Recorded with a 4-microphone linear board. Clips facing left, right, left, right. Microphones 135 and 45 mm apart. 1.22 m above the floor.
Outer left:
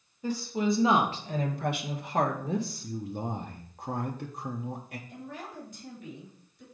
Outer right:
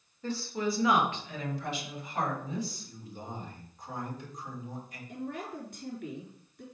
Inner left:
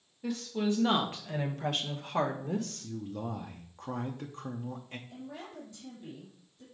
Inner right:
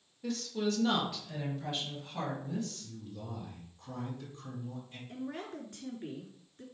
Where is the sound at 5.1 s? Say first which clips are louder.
Outer right 7 dB, inner right 4 dB; 65° right (ahead or behind), 3.5 m.